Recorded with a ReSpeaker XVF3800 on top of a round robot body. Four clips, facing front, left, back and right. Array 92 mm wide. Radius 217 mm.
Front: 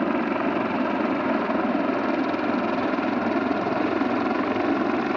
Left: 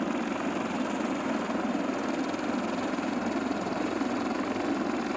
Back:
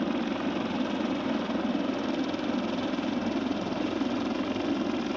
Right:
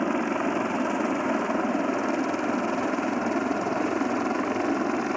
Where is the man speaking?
I don't hear a man speaking.